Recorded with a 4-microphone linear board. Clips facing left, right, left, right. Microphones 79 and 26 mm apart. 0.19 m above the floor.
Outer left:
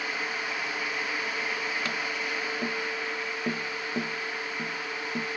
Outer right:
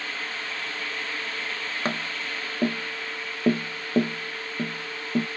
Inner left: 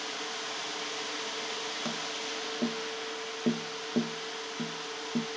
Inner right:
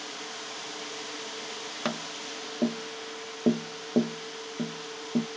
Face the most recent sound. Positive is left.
turn(degrees=-40)  # may be behind; listen again after turning